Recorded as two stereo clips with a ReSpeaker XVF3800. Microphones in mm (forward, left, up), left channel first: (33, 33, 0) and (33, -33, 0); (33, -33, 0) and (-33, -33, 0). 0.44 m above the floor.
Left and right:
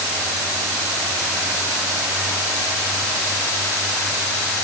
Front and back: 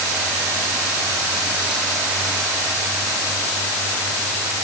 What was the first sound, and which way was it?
Only background noise.